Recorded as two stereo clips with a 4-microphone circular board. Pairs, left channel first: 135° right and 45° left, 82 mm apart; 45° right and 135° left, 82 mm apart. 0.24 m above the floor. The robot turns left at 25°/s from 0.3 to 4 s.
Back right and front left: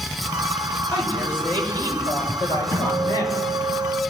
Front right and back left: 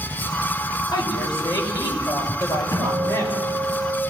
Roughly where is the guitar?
Right.